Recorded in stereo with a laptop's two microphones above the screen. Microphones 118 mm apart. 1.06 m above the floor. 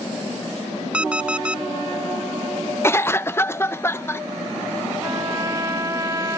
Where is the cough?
20° left (ahead or behind).